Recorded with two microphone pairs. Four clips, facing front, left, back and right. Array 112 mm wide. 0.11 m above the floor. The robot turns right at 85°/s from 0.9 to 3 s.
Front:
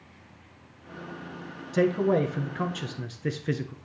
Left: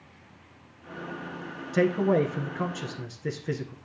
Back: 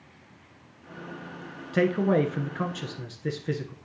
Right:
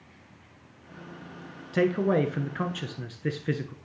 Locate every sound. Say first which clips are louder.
1.7 s a man speaking: left 1 dB, even; 170° right, 1.1 m; by 3.7 s 60° right, 1.1 m